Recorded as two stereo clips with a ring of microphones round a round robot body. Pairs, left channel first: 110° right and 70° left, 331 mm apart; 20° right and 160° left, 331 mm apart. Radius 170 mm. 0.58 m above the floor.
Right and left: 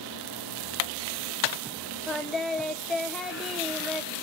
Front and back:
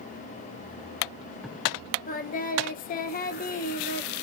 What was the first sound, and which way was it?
Singing, 20° right.